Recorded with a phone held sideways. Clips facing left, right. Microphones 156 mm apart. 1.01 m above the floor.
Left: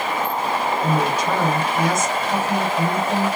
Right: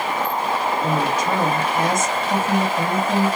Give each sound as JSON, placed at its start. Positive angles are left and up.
{"t": 0.8, "sound": "a woman speaking", "side_deg": -20, "distance_m": 1.9}